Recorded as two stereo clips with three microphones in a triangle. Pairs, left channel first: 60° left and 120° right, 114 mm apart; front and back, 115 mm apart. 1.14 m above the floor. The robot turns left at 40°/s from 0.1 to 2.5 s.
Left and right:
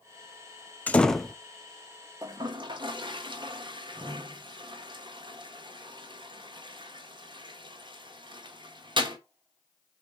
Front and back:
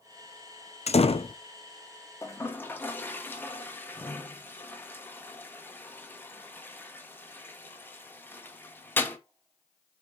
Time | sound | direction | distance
0.9 | a door slam | 15° right | 0.7 m
2.2 | a toilet flushing | 60° right | 1.4 m